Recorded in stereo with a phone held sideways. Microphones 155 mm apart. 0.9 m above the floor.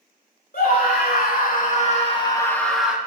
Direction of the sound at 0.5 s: 75° left (ahead or behind).